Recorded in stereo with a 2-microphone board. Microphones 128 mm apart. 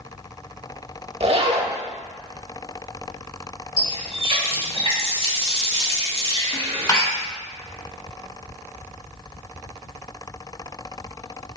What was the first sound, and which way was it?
A zipper, 50° right (ahead or behind).